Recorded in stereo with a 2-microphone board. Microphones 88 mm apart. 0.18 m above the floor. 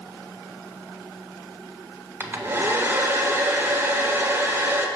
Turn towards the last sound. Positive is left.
turn(degrees=-30)  # may be behind; listen again after turning